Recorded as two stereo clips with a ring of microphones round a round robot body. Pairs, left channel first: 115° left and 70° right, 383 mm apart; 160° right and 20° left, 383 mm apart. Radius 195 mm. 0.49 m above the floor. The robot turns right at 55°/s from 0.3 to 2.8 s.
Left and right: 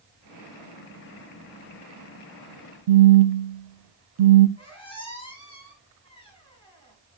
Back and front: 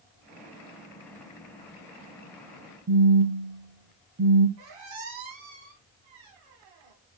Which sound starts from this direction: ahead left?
A squeak, at 4.6 s.